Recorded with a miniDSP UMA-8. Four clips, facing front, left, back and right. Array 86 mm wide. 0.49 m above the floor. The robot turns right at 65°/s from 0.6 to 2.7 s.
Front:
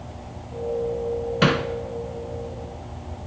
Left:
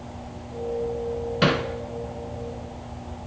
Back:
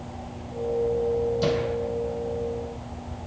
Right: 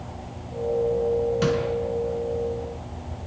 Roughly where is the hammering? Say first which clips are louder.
Left 1 dB, front 3 dB; ahead.